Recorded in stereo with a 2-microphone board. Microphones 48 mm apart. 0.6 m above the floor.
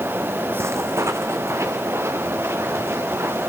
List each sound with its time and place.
0.6 s footsteps: 65° right (ahead or behind), 1.5 m